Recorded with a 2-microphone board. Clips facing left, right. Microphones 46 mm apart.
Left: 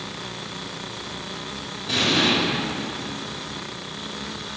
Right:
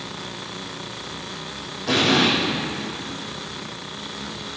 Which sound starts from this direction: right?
An explosion, at 1.9 s.